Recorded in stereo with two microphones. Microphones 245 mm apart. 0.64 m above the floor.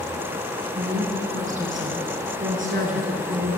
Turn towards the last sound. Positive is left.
turn(degrees=-55)  # may be behind; listen again after turning